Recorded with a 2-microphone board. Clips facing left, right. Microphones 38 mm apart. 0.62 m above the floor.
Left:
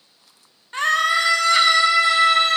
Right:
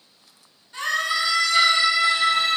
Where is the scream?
55° left (ahead or behind), 1.0 m.